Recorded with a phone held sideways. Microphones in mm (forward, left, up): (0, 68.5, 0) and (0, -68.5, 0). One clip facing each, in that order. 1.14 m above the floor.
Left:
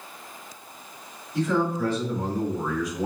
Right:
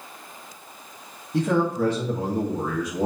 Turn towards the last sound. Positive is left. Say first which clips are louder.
# right 2 dB
turn(degrees=-85)